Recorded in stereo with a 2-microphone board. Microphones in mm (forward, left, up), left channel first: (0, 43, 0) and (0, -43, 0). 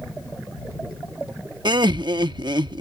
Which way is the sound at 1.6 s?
60° right (ahead or behind).